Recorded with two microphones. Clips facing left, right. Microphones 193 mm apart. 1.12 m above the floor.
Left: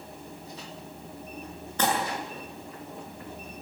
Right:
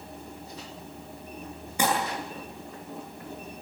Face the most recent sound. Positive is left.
turn(degrees=-10)  # may be behind; listen again after turning